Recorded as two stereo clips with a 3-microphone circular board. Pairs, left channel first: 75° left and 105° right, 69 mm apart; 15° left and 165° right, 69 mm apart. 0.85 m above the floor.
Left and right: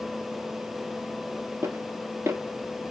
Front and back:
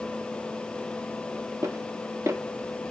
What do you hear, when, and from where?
1.6 s footsteps: 140° right, 1.3 m